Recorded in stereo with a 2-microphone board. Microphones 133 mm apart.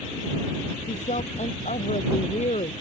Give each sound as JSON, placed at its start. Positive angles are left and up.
{"t": 0.9, "sound": "a woman speaking", "side_deg": 65}